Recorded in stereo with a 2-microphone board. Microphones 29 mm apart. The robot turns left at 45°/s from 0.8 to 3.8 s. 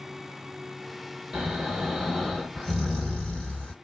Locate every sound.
1.3 s snoring: 135° right, 1.8 m; by 3.7 s 115° left, 1.8 m